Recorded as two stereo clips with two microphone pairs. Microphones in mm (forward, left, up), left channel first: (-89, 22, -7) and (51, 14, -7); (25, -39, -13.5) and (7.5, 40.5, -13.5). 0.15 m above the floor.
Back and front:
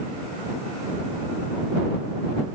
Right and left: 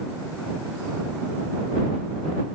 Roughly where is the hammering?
No hammering in this recording.